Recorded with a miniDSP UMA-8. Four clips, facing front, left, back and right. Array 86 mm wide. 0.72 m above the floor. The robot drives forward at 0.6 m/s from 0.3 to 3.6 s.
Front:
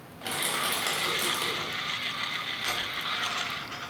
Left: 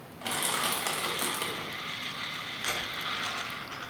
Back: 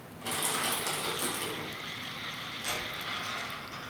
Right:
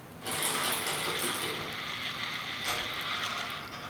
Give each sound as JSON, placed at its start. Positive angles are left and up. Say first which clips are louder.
{"t": 0.2, "sound": "crushing", "louder": "left 2 dB, front 2 dB", "azimuth_deg": 45, "distance_m": 2.5}
{"t": 2.6, "sound": "a dropped coin", "louder": "left 1 dB, front 3 dB", "azimuth_deg": 45, "distance_m": 3.0}